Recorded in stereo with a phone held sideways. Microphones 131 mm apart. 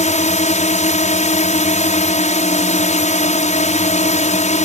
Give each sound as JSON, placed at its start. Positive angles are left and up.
{"t": 0.0, "sound": "a drone", "side_deg": 60}